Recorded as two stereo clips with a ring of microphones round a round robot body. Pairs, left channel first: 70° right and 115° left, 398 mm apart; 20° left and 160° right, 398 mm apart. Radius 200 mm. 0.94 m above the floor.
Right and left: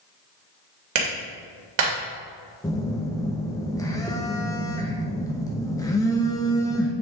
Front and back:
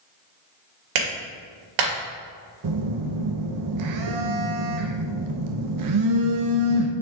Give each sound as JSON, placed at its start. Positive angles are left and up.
{"t": 0.9, "sound": "a clap", "azimuth_deg": 165, "distance_m": 2.5}
{"t": 2.6, "sound": "a phone buzzing", "azimuth_deg": -145, "distance_m": 0.8}